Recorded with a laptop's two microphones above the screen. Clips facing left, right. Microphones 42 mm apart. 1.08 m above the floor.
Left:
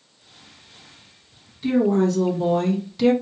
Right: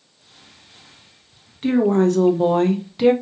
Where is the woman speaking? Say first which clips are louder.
Right 2 dB; 50° right (ahead or behind), 1.0 m; by 3.1 s 15° right (ahead or behind), 0.5 m.